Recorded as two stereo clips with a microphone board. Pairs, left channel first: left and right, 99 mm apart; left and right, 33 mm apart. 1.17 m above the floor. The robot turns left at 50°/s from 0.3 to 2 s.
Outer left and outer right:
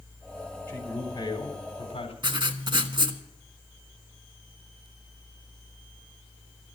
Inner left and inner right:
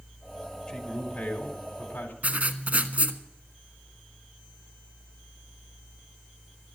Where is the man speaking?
160° left, 3.5 m; by 2.1 s 95° left, 3.5 m.